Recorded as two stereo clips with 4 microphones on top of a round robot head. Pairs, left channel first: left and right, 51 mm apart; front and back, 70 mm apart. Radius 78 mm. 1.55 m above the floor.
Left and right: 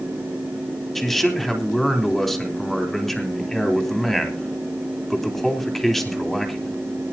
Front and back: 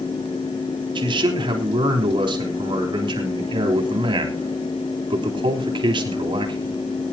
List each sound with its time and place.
0.9 s a man speaking: 175° left, 3.5 m